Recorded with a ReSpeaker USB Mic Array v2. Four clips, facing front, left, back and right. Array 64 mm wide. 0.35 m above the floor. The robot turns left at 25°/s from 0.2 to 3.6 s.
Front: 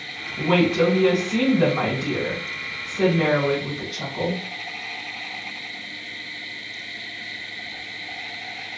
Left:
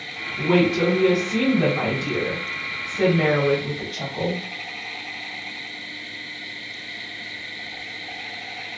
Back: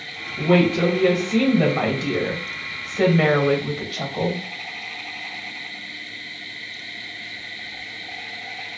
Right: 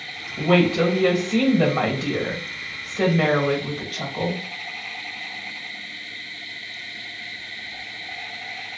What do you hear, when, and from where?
0.4 s a woman speaking: 85° right, 1.3 m; by 4.4 s 165° right, 1.3 m